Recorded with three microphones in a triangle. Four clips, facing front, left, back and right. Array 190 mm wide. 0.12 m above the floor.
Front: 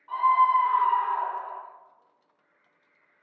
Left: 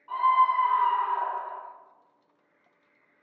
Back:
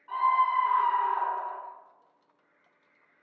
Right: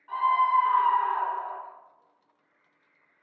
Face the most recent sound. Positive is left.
turn(degrees=45)